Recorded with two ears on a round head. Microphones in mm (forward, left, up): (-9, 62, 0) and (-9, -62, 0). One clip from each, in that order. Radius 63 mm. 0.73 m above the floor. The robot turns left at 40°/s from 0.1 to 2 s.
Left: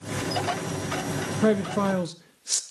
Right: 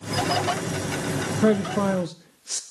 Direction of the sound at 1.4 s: 10° left (ahead or behind).